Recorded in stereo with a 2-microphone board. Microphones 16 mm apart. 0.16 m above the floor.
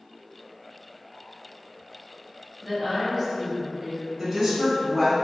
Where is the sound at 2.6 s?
15° right (ahead or behind), 1.7 m.